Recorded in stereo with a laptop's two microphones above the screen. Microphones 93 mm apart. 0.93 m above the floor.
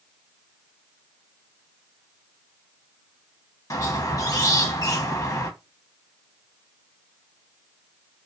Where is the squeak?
35° left (ahead or behind), 0.7 m.